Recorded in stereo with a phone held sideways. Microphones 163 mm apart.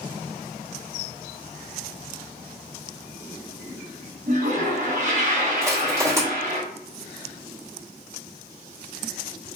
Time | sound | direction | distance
4.3 | a toilet flushing | 50° right (ahead or behind) | 1.0 m
5.6 | crushing | 20° right (ahead or behind) | 1.3 m